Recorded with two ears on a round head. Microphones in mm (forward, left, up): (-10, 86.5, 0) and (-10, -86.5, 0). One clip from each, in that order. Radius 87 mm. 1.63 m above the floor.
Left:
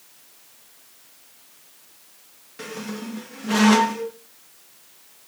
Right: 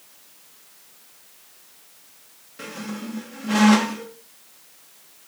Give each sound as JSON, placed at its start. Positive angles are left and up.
{"t": 2.6, "sound": "a squeak", "side_deg": 15, "distance_m": 1.0}